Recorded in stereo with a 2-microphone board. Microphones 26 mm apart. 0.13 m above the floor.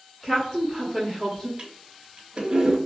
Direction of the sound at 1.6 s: 40° right (ahead or behind).